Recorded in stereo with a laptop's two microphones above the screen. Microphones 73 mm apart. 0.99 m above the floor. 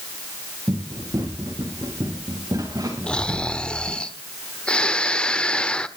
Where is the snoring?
15° left (ahead or behind), 1.1 m.